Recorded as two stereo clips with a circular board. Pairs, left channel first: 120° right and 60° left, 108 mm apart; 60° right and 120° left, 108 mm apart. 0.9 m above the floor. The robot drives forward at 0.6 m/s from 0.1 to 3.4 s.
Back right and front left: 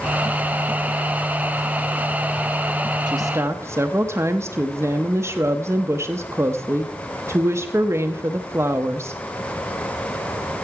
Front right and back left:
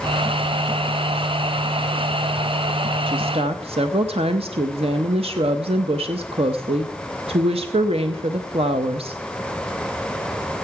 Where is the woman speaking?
100° left, 0.5 m; by 9.2 s 120° left, 0.6 m.